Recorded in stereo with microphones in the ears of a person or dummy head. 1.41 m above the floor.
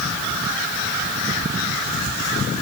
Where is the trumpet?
No trumpet in this recording.